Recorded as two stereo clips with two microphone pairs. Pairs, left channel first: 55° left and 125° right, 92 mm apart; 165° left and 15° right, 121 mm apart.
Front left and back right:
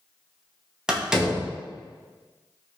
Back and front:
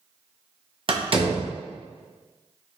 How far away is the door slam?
About 0.6 m.